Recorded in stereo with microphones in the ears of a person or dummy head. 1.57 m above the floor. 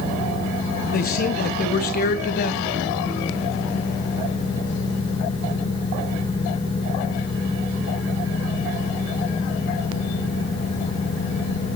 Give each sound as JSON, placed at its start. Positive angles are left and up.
{"t": 0.9, "sound": "a man speaking", "side_deg": 50, "distance_m": 1.0}